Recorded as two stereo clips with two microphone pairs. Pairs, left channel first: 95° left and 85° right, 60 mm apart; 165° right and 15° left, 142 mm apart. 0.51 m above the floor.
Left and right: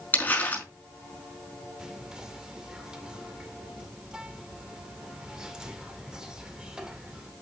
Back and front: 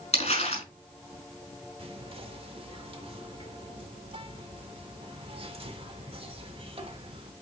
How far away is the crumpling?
About 5.5 m.